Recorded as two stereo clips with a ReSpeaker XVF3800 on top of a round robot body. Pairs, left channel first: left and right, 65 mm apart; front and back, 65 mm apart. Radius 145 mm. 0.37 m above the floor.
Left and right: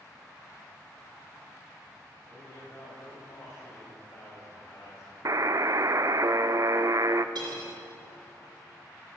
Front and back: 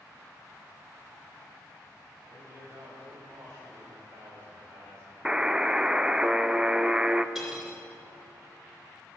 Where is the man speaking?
135° left, 4.5 m.